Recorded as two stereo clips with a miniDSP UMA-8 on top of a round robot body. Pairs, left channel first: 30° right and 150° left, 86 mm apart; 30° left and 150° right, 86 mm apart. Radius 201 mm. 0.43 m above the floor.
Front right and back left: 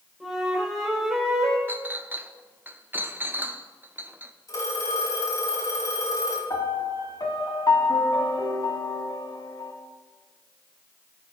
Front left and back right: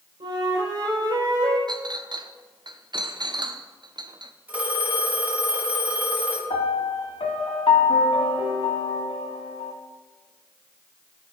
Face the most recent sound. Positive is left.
turn(degrees=20)